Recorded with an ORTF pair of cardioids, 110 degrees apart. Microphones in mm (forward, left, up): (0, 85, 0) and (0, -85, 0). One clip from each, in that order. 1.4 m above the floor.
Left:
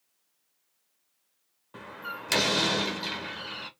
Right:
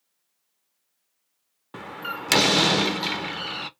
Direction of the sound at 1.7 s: 45° right.